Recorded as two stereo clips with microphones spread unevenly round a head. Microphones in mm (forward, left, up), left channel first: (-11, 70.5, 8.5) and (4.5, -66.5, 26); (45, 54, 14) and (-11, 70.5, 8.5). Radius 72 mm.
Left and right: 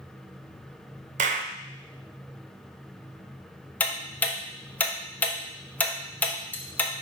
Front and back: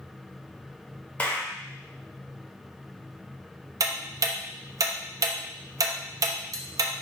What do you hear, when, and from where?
1.2 s a clap: 85° right, 0.6 m
3.8 s ticking: straight behind, 0.8 m